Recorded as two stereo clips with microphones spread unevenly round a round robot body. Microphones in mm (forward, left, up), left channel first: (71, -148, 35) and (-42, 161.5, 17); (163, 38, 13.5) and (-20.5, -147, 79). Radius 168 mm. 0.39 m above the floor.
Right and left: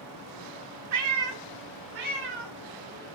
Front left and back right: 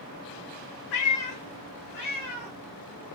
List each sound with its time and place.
0.9 s a cat meowing: 70° left, 0.5 m; by 3.1 s 120° left, 1.6 m